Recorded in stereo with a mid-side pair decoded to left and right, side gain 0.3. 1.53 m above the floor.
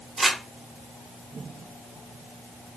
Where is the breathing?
No breathing in this recording.